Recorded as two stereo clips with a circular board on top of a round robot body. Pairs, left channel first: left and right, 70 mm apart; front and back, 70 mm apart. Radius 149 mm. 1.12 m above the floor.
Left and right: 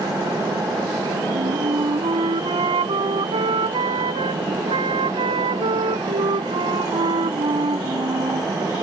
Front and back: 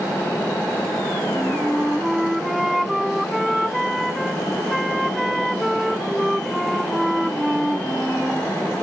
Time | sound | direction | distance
1.3 | a flute | 90° right | ?